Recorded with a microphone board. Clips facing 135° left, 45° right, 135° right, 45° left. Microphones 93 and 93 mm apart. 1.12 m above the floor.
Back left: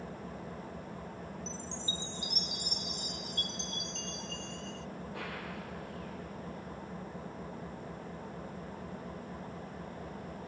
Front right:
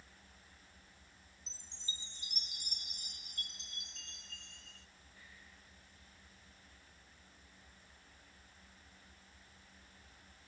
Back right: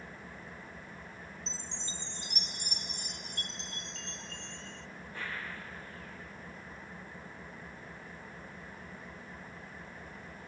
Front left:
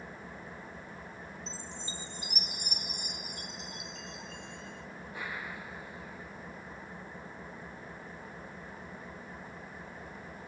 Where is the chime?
125° left.